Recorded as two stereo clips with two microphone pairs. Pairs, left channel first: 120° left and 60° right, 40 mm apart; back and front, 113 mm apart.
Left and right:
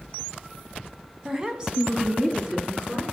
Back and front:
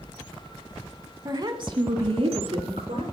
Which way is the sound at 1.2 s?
5° right.